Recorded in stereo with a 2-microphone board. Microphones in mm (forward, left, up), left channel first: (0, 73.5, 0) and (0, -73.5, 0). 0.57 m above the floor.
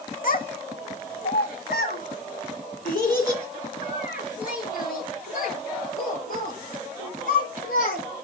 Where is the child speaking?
70° left (ahead or behind), 1.2 m; by 8.0 s 75° left (ahead or behind), 8 m.